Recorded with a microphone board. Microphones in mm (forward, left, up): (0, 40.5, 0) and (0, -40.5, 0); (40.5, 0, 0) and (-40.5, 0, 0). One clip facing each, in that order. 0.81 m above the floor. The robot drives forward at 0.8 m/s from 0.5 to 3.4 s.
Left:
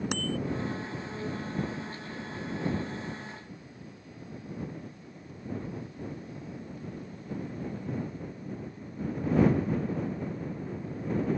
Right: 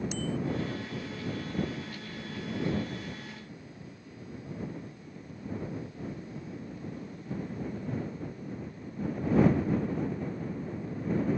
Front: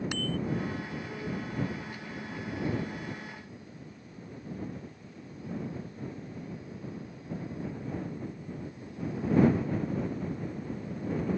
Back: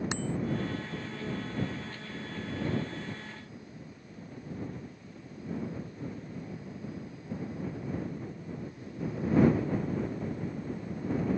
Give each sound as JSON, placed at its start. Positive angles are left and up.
{"t": 0.1, "sound": "a bicycle bell", "azimuth_deg": 115}